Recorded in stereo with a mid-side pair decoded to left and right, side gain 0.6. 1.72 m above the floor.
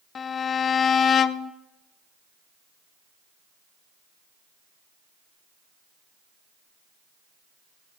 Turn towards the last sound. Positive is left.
turn(degrees=40)